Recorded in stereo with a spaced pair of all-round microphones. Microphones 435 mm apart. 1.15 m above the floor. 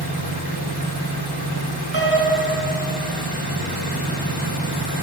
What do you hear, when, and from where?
0.0 s an engine running: 60° right (ahead or behind), 4.5 m
1.9 s a piano: 30° left (ahead or behind), 3.5 m